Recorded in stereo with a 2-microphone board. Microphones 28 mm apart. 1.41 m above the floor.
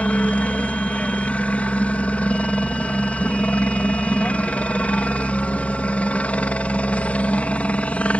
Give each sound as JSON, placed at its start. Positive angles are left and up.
{"t": 0.0, "sound": "a helicopter", "side_deg": 60}